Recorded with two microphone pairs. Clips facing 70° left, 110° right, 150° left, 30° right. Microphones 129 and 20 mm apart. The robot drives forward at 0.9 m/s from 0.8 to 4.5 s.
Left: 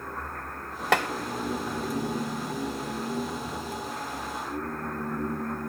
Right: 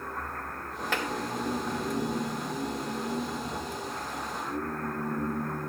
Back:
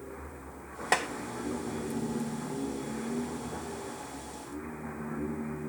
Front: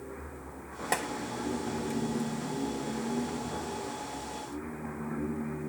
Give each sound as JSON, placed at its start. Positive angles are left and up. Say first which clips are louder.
{"t": 0.9, "sound": "tapping", "louder": "left 8 dB, back 4 dB", "azimuth_deg": 80, "distance_m": 0.7}